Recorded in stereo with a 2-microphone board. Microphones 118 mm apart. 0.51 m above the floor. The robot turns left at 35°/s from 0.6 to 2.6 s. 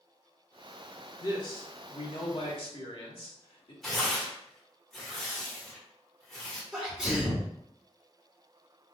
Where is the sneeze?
5° right (ahead or behind), 1.6 m.